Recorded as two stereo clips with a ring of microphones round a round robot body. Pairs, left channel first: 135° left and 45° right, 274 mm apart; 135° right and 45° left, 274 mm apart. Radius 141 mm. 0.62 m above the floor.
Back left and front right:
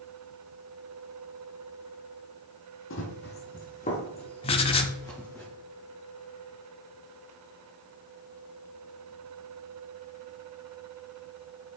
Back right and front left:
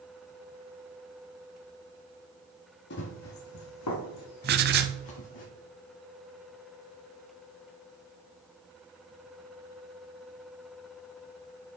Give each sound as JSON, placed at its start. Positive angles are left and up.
{"t": 2.9, "sound": "running footsteps", "azimuth_deg": 175, "distance_m": 1.3}
{"t": 4.4, "sound": "writing", "azimuth_deg": 75, "distance_m": 0.5}